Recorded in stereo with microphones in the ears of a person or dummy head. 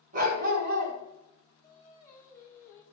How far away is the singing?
About 1.0 m.